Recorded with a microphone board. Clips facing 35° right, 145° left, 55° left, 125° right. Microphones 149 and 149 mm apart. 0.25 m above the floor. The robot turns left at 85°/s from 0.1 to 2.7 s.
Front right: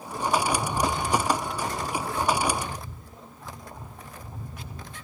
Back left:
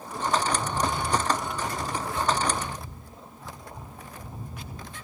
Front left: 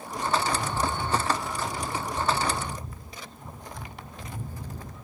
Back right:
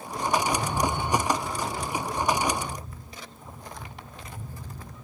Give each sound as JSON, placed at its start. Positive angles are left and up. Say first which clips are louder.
{"t": 0.5, "sound": "a rattle", "louder": "front right 1 dB, back right 2 dB", "azimuth_deg": -85, "distance_m": 7.0}